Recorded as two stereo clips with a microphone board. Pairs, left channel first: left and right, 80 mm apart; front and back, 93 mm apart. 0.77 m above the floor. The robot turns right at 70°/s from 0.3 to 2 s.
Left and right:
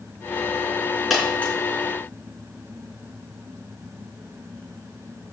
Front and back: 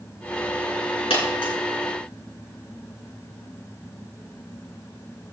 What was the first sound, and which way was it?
A dropped coin, straight ahead.